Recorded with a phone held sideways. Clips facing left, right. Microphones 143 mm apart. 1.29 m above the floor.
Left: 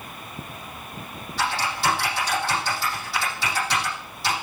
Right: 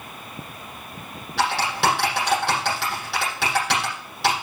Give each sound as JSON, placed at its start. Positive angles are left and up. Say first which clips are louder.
{"t": 1.4, "sound": "typing on a keyboard", "louder": "right 3 dB", "side_deg": -80, "distance_m": 7.5}